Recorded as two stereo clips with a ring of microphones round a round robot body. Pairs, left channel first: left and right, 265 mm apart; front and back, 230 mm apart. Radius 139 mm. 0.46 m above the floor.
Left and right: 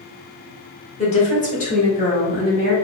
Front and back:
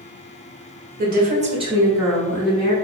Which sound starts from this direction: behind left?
A woman speaking, at 1.0 s.